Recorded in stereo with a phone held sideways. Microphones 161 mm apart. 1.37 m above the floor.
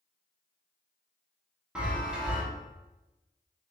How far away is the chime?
About 0.9 m.